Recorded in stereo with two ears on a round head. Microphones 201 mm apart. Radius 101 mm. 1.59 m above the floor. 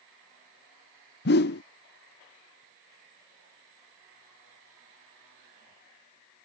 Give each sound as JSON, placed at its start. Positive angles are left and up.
{"t": 1.2, "sound": "a whoosh", "side_deg": 45}